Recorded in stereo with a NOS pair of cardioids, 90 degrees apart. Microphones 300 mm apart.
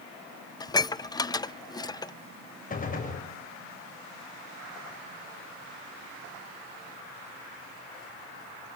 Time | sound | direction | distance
0.6 | dishes clattering | 15° left | 0.6 m
2.7 | a gunshot | 25° left | 6.5 m